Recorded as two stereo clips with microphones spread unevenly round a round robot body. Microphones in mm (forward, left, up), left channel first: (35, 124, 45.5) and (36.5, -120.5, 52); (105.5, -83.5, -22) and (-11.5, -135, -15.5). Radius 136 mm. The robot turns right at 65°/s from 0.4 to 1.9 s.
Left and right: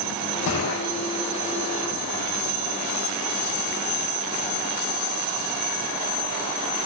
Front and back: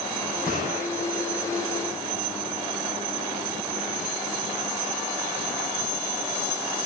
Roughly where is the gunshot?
Behind left.